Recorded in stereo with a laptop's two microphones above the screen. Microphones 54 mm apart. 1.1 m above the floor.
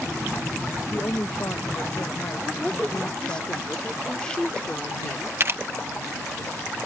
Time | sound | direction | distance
0.8 | a woman speaking | 50° left (ahead or behind) | ?
2.4 | a woman speaking | 15° left (ahead or behind) | ?
5.4 | a camera shutter | 45° right (ahead or behind) | ?